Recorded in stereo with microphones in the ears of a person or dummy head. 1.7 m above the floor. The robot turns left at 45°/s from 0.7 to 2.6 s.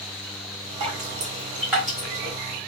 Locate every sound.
0.8 s dripping: 30° right (ahead or behind), 1.1 m; by 2.4 s 15° left (ahead or behind), 1.1 m